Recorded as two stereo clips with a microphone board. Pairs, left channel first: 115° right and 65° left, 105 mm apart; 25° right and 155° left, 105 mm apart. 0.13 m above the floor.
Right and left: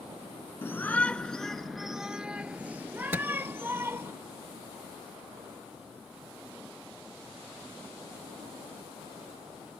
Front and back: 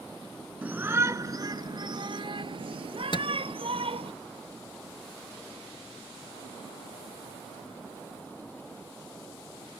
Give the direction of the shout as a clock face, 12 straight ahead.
5 o'clock.